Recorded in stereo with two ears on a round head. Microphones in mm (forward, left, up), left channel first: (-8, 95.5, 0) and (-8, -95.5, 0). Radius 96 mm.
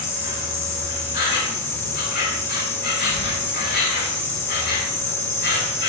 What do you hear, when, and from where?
0.0 s an insect: 45° left (ahead or behind), 3.5 m